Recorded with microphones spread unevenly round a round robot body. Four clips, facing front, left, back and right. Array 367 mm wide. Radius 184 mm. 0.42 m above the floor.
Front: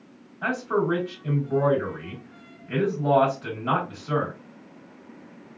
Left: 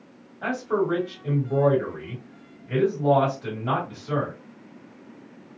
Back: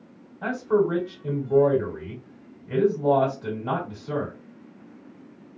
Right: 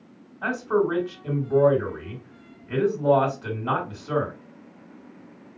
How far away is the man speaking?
About 1.6 m.